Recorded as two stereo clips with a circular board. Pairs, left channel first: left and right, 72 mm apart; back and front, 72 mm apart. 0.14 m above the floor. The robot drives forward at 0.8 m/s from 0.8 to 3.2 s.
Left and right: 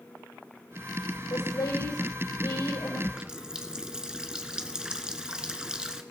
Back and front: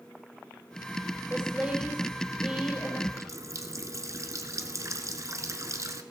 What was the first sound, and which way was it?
A woman speaking, 70° left.